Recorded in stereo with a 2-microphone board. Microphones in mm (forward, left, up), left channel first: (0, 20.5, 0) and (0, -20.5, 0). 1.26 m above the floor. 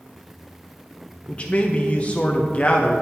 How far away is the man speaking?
About 0.6 m.